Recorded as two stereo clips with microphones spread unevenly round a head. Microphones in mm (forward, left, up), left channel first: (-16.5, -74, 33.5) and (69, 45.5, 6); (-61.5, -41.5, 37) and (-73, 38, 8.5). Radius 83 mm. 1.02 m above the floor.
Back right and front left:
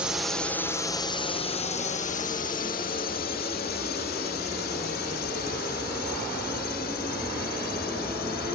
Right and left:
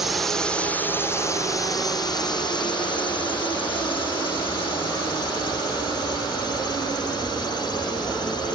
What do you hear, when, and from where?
0.0 s a drone: 100° left; by 8.6 s 110° right